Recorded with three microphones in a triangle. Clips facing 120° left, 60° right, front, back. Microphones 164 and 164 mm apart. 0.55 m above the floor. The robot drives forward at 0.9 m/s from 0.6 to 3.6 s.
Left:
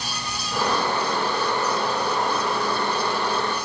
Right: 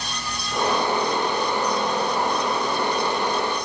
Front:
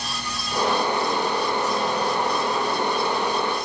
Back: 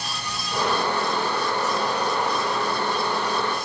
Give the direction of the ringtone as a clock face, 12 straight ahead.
I don't hear a ringtone.